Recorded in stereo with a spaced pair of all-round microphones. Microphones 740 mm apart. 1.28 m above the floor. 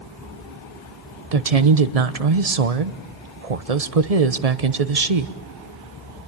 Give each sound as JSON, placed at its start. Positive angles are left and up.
{"t": 1.3, "sound": "a woman speaking", "side_deg": -55, "distance_m": 1.1}